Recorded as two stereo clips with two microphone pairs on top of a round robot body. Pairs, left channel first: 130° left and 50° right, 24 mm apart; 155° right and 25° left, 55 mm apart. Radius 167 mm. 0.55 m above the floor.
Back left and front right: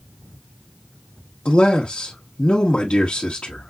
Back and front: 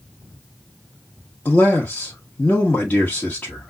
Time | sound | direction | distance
1.4 | a man speaking | 150° left | 1.4 m